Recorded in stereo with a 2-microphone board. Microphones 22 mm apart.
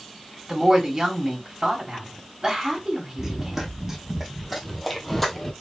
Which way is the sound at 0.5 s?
25° right (ahead or behind).